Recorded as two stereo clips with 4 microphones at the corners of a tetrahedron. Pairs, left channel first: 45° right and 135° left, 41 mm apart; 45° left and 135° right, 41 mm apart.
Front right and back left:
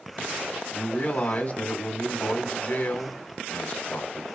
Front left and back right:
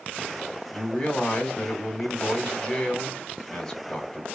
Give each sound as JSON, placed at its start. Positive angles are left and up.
{"t": 0.7, "sound": "a man speaking", "azimuth_deg": -30, "distance_m": 1.5}